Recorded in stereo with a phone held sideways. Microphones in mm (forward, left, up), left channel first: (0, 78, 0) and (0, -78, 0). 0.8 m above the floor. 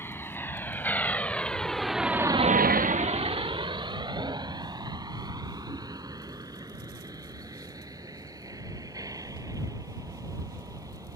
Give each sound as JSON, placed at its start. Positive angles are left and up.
{"t": 0.0, "sound": "a vehicle", "side_deg": 15}